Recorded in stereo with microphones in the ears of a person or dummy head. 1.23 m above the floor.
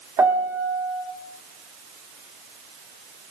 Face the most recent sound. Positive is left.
turn(degrees=-20)  # may be behind; listen again after turning